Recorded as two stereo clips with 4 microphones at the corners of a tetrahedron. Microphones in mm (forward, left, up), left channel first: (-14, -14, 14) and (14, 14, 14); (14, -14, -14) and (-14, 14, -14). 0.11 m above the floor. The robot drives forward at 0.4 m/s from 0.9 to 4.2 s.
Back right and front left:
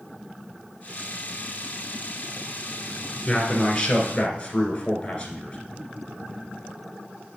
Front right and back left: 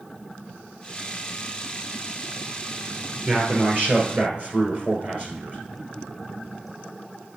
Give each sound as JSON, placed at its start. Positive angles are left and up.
{"t": 3.2, "sound": "a man speaking", "azimuth_deg": 155, "distance_m": 1.9}